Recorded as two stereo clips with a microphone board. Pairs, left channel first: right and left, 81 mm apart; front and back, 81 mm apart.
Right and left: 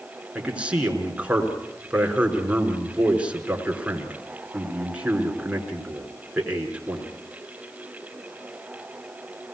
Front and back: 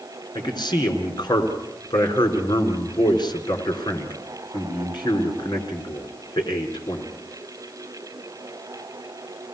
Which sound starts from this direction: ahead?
A man speaking, at 0.3 s.